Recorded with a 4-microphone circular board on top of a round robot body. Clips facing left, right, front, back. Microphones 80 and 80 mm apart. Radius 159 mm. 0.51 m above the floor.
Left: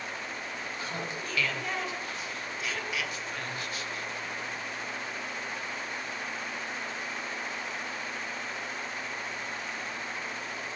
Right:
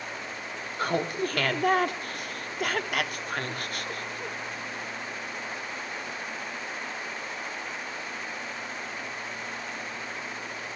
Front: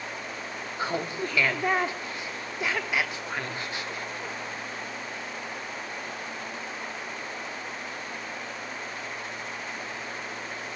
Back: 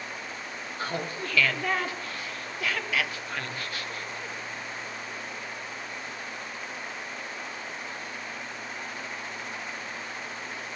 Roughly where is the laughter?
Right.